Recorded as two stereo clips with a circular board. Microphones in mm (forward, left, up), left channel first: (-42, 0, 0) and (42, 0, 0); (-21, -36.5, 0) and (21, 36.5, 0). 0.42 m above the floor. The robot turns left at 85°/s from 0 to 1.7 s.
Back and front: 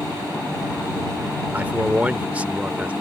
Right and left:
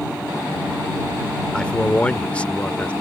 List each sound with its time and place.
1.5 s a man speaking: 45° right; by 2.9 s 60° right